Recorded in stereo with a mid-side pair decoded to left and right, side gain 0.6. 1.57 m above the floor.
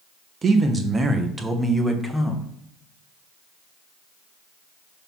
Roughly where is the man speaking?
Ahead right.